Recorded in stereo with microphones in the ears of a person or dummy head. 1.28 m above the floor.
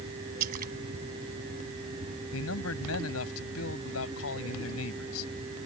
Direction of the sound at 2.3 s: 80° left.